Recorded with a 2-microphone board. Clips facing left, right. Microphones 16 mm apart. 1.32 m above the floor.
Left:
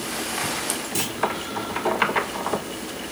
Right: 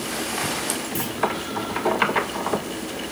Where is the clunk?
55° left (ahead or behind), 1.4 m.